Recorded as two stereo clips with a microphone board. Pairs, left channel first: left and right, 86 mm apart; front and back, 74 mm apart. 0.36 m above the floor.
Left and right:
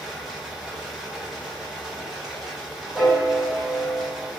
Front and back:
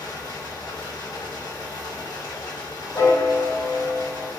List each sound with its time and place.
0.0 s running water: 5° right, 1.2 m
3.0 s a piano: 25° right, 1.2 m